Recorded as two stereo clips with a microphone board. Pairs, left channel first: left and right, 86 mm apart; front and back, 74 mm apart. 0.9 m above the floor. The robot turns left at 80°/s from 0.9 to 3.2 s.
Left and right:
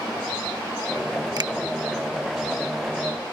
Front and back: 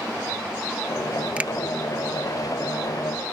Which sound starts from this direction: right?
A finger snap, at 1.4 s.